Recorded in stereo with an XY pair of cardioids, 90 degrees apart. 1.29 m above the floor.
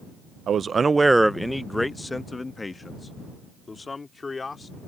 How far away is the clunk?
No clunk in this recording.